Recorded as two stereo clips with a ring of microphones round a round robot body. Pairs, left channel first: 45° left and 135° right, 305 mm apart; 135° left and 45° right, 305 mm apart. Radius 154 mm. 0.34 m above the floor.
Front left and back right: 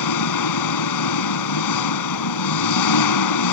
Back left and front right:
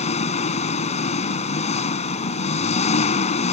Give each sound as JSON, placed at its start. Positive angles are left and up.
{"t": 0.0, "sound": "an engine running", "azimuth_deg": 65}